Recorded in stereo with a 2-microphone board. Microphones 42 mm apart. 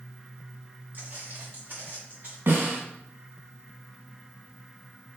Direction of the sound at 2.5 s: 55° right (ahead or behind).